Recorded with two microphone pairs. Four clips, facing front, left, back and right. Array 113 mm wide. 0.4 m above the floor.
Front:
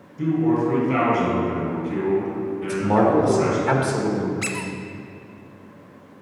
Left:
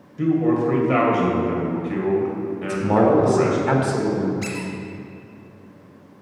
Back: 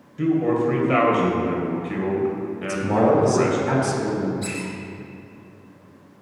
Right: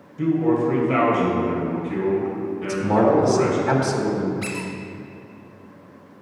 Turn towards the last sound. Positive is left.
turn(degrees=-30)